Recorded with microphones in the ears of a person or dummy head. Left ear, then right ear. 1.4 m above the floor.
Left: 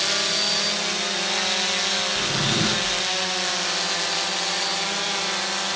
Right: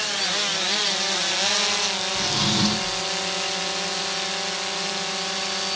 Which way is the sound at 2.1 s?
40° right (ahead or behind).